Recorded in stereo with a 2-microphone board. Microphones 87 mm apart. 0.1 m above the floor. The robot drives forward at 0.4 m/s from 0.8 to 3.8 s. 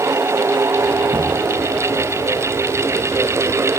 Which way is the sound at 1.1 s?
70° right (ahead or behind).